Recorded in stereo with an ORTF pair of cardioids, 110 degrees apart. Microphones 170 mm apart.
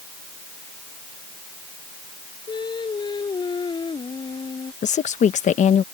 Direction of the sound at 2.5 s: 25° left.